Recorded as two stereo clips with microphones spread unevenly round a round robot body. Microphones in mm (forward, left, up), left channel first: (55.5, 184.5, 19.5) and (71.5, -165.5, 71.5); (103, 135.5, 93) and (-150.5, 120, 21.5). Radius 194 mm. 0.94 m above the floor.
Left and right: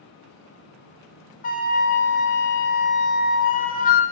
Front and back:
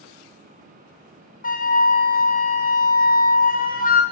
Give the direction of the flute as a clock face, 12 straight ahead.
10 o'clock.